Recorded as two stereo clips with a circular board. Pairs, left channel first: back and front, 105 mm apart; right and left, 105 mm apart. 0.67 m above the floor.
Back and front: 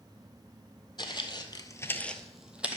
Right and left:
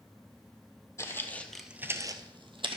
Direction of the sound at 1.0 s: 145° right.